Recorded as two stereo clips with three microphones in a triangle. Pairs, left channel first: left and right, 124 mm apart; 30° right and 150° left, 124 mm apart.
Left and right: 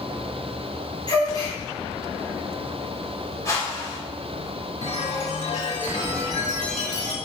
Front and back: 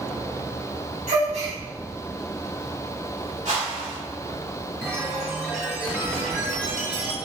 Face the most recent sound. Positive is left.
turn(degrees=80)